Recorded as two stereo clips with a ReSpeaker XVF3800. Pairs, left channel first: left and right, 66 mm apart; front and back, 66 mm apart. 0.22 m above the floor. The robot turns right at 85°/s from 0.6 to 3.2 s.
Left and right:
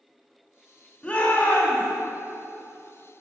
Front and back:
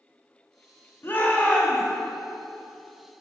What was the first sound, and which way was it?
A shout, 25° left.